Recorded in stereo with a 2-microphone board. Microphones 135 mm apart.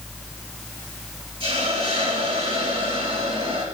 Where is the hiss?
40° right (ahead or behind), 4 m.